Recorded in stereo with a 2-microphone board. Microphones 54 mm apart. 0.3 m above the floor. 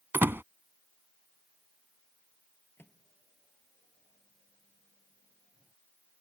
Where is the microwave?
45° left (ahead or behind).